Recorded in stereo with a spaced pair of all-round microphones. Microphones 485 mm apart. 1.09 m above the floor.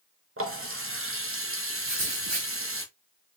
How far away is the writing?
About 1.5 m.